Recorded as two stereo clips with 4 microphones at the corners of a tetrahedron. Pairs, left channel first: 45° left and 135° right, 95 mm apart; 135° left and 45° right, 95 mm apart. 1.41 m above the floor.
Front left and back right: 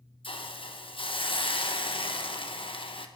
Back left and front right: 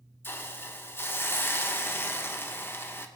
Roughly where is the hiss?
Left.